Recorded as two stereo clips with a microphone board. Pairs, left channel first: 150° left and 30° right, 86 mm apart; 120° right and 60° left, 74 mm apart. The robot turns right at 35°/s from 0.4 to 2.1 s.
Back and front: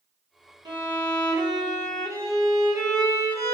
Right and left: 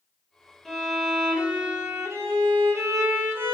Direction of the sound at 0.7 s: 35° right.